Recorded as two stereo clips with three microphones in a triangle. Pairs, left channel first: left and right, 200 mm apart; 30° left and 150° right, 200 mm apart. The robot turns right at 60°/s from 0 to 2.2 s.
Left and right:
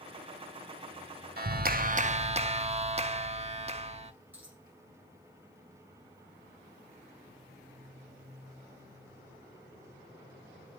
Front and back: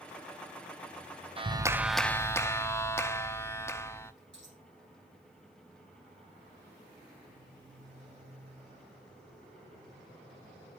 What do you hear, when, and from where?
1.4 s a clap: 95° right, 0.7 m; by 4.1 s 45° right, 0.7 m
4.3 s a dropped coin: 170° right, 5 m